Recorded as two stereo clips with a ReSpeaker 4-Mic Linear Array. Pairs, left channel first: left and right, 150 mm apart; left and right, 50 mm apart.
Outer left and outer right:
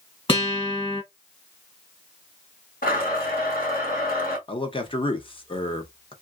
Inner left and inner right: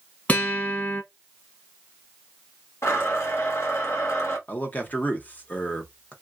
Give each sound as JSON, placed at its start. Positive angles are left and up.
{"t": 0.3, "sound": "a guitar", "side_deg": 35, "distance_m": 1.8}
{"t": 2.8, "sound": "a blender", "side_deg": 70, "distance_m": 1.2}
{"t": 4.5, "sound": "a man speaking", "side_deg": 35, "distance_m": 0.9}